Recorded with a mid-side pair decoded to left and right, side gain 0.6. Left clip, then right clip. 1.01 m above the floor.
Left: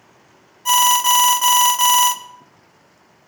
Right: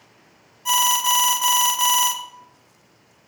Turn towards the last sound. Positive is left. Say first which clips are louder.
# left 4 dB
turn(degrees=20)